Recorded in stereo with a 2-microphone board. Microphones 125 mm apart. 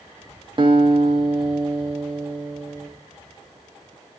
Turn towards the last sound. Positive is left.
turn(degrees=-40)  # may be behind; listen again after turning